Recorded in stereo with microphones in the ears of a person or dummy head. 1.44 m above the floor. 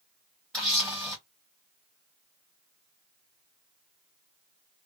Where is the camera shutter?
10° left (ahead or behind), 1.2 m.